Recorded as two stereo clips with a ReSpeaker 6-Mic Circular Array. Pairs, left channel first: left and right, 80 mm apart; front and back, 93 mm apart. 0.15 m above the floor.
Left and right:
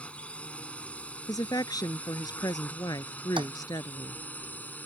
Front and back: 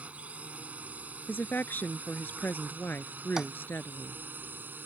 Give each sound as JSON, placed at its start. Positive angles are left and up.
{"t": 0.0, "sound": "a drone", "azimuth_deg": 135}
{"t": 1.3, "sound": "a woman speaking", "azimuth_deg": 65}
{"t": 3.4, "sound": "tapping", "azimuth_deg": -95}